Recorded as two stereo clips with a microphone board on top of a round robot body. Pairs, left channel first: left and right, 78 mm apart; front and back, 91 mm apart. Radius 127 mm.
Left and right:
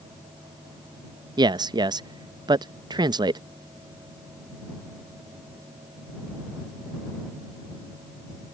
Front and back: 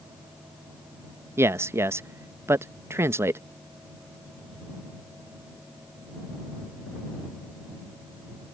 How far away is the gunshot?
No gunshot in this recording.